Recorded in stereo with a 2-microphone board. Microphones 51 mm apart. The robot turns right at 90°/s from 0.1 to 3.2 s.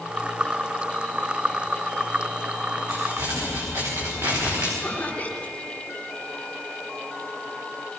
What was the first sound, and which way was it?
Crumpling, 85° right.